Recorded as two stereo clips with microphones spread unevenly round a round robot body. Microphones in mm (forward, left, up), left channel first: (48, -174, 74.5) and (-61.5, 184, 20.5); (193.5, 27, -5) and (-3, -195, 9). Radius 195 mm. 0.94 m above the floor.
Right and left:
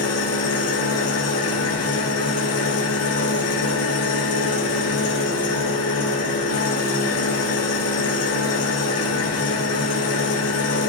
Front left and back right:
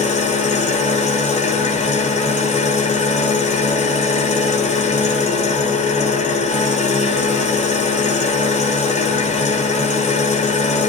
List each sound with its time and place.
0.0 s an engine running: 20° right, 2 m